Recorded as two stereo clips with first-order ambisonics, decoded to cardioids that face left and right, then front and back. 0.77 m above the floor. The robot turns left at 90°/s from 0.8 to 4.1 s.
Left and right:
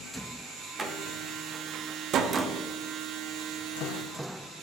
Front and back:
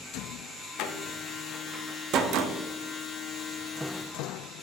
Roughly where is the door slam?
Ahead.